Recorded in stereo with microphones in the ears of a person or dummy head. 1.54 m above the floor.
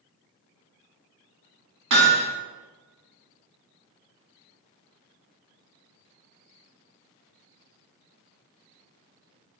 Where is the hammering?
60° right (ahead or behind), 1.8 m.